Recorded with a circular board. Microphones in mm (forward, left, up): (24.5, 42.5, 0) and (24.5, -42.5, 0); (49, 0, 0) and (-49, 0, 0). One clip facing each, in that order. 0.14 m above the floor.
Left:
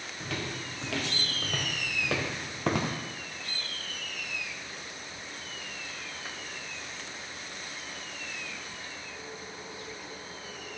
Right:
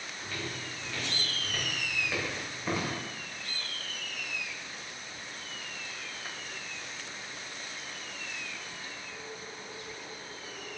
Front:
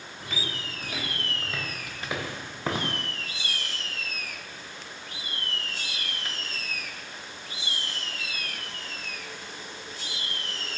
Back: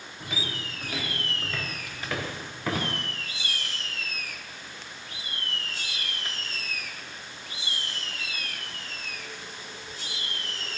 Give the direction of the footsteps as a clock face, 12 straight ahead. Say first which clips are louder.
Left 3 dB, back 1 dB; 9 o'clock.